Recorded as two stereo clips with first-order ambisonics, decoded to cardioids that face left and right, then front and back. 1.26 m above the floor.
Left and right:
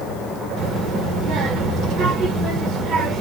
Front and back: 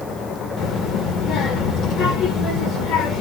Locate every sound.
0.6 s a child speaking: 50° right, 2 m